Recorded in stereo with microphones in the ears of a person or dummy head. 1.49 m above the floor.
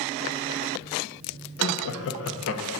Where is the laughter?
70° left (ahead or behind), 0.6 m.